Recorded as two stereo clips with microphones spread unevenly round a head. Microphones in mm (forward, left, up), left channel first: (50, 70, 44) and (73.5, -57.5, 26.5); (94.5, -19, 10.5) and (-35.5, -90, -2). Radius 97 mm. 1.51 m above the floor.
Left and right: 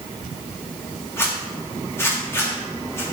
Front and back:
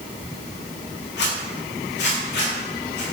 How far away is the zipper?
About 3.5 m.